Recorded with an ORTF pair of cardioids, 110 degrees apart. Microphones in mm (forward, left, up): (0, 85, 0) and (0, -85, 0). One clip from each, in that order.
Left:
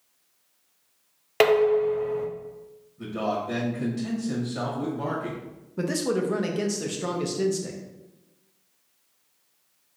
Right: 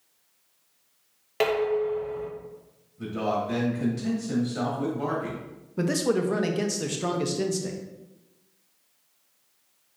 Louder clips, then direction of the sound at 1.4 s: Left 5 dB; 40° left.